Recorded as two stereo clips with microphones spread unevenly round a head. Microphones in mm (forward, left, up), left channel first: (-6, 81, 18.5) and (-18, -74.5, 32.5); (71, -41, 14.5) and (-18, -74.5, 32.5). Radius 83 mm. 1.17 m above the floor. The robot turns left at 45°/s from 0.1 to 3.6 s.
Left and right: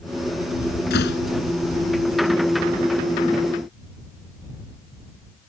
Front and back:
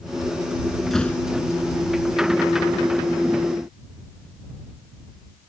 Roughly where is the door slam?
Left.